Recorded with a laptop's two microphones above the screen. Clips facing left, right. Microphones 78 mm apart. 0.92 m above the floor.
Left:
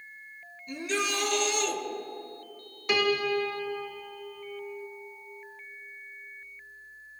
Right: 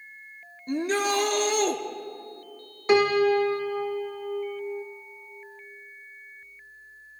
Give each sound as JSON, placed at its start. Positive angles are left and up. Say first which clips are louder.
{"t": 0.7, "sound": "a shout", "louder": "right 6 dB", "side_deg": -45, "distance_m": 0.6}
{"t": 2.9, "sound": "a piano", "louder": "right 7 dB", "side_deg": -30, "distance_m": 0.6}